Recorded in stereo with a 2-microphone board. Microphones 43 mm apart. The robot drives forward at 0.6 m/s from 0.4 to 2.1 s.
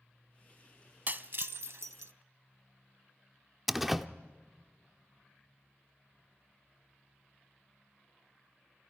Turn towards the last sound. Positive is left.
turn(degrees=-5)  # may be behind; listen again after turning